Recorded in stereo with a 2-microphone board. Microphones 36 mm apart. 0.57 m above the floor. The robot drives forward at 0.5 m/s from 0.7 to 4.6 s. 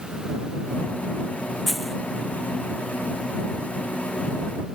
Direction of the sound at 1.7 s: Centre (ahead or behind).